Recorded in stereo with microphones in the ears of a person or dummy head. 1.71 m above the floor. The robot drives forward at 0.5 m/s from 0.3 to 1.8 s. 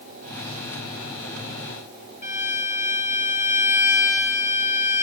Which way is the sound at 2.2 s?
40° left (ahead or behind).